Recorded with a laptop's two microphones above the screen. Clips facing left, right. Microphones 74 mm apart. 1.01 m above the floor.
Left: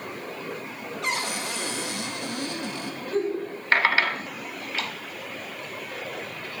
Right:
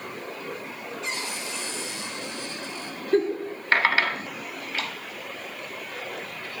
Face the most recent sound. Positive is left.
turn(degrees=-70)  # may be behind; listen again after turning